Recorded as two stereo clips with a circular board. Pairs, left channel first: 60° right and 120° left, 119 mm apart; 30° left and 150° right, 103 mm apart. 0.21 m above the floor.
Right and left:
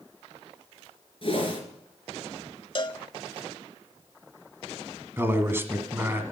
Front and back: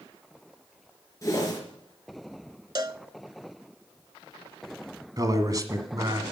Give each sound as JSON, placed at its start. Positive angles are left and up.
{"t": 1.2, "sound": "a whoosh", "azimuth_deg": -25, "distance_m": 3.5}
{"t": 2.8, "sound": "a cowbell", "azimuth_deg": -105, "distance_m": 0.5}
{"t": 5.2, "sound": "a man speaking", "azimuth_deg": 180, "distance_m": 1.6}